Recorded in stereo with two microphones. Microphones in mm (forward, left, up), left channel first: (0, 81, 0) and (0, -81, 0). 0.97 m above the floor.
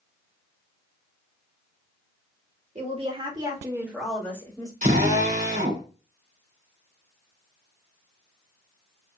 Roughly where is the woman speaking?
Right.